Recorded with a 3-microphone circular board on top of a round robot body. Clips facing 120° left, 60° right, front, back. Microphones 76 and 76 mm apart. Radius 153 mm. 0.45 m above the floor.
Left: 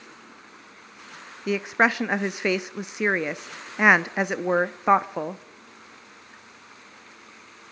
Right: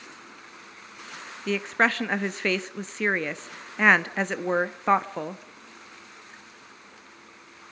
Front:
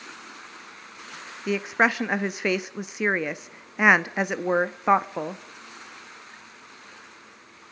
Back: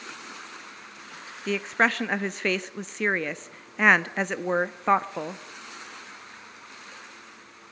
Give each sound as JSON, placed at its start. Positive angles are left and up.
{"t": 1.5, "sound": "a woman speaking", "azimuth_deg": 65, "distance_m": 0.9}